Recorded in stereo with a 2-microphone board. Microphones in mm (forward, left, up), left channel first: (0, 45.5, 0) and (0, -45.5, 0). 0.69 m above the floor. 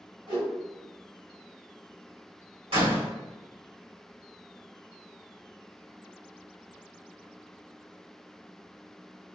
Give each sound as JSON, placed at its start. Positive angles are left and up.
{"t": 0.3, "sound": "a whoosh", "side_deg": -60, "distance_m": 1.6}
{"t": 2.7, "sound": "a door slam", "side_deg": -75, "distance_m": 1.4}